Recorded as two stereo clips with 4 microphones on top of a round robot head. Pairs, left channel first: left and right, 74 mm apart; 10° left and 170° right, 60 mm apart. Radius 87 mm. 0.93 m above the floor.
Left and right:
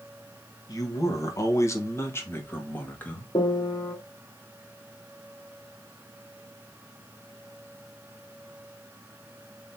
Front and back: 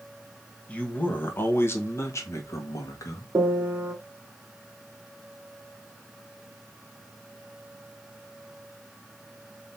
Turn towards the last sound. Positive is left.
turn(degrees=130)